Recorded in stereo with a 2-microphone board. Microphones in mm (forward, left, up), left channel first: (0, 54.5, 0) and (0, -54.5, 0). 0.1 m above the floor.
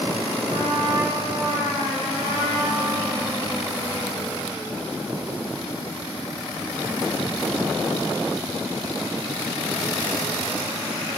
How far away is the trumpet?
About 6 m.